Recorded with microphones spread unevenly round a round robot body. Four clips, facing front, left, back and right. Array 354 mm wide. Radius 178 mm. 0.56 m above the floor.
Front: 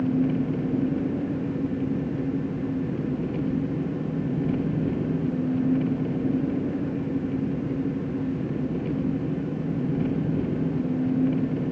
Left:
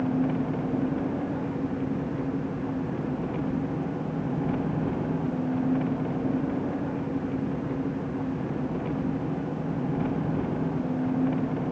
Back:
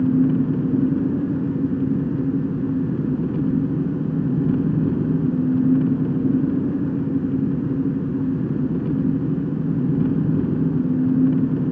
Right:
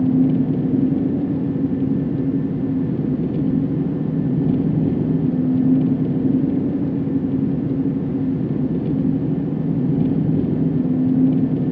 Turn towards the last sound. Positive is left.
turn(degrees=-130)